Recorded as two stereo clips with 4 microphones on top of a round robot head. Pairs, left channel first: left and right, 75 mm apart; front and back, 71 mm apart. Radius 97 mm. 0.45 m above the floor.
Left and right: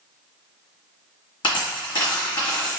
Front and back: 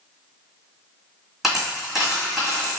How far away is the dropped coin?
About 1.3 m.